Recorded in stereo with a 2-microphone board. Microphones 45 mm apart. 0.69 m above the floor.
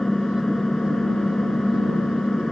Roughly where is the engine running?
Centre.